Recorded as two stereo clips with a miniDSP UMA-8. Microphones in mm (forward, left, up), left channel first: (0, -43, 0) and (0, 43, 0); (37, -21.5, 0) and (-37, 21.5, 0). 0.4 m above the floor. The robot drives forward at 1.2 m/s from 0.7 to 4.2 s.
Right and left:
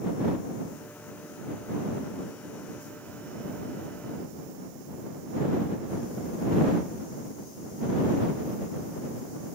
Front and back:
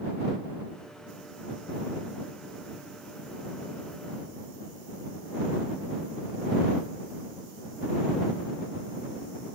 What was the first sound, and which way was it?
Only background noise.